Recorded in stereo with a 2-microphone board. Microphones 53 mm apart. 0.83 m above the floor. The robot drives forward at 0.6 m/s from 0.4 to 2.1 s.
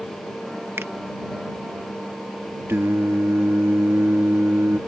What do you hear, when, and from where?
0.8 s a finger snap: 50° right (ahead or behind)
2.7 s singing: 50° right (ahead or behind)